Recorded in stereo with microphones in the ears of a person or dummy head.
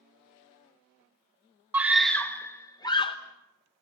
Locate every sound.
1.7 s a scream: 10° right (ahead or behind), 1.1 m; by 3.2 s 25° left (ahead or behind), 1.4 m